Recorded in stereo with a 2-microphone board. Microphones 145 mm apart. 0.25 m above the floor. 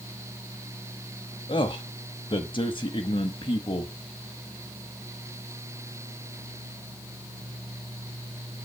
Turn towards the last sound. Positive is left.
turn(degrees=35)  # may be behind; listen again after turning